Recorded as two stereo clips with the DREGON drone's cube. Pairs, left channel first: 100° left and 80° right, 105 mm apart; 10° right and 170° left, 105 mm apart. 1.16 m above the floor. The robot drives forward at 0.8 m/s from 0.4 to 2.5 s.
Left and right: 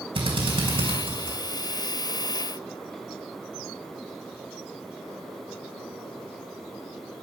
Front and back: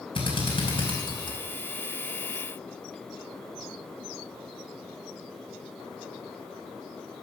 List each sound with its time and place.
0.1 s a drill: 45° right, 4.5 m; by 1.4 s 55° right, 4 m